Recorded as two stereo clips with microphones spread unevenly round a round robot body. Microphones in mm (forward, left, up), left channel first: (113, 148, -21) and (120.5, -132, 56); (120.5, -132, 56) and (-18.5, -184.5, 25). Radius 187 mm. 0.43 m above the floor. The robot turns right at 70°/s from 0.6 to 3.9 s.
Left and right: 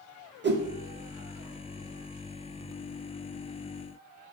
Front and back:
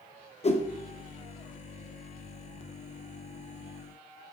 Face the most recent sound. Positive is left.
turn(degrees=-160)